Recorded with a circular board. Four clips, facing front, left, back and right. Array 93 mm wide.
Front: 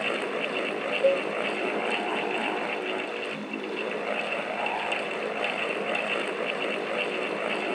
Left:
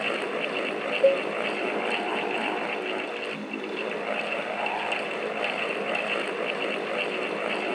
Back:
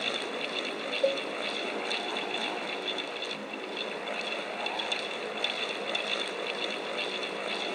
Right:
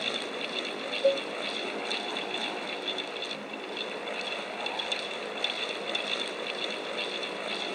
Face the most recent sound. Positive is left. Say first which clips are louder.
# left 5 dB, front 5 dB
turn(degrees=95)